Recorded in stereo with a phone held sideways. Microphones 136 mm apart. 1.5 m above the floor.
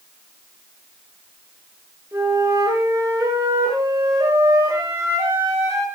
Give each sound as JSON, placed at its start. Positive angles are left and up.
{"t": 2.1, "sound": "a flute", "side_deg": -20, "distance_m": 8.5}